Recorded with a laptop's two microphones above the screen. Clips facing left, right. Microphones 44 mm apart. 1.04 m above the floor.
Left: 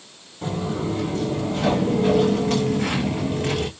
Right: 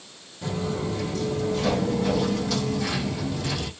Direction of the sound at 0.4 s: 30° left (ahead or behind).